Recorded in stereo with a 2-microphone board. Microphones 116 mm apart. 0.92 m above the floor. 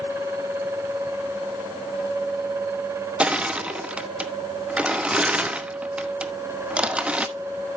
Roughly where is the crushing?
Centre.